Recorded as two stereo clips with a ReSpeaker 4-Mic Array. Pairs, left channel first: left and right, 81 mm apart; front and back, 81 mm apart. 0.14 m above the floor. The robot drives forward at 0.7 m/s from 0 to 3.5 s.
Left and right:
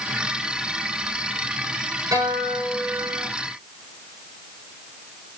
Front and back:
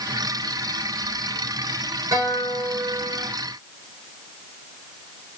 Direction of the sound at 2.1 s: 135° right.